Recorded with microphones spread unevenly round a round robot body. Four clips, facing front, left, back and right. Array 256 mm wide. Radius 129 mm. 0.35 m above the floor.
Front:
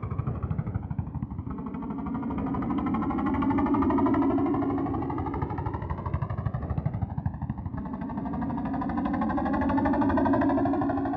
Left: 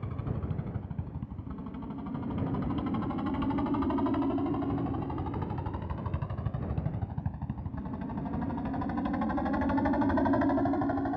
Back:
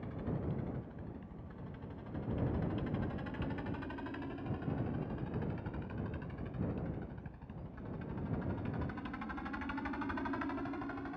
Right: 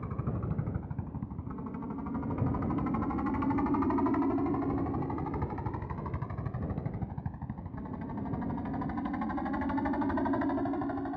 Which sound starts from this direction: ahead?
A helicopter, at 0.0 s.